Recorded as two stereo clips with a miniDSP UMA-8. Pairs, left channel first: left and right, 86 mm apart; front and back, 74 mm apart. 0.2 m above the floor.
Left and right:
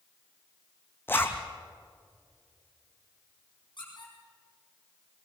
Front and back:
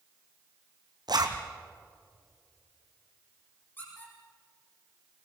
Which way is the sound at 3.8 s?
65° left.